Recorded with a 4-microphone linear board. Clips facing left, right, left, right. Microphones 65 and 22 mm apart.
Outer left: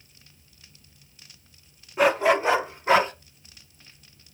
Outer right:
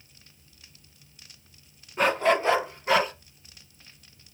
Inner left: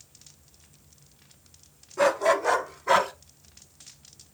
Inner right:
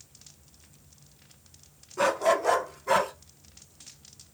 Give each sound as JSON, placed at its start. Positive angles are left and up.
{"t": 2.0, "sound": "a dog barking", "side_deg": 5, "distance_m": 1.2}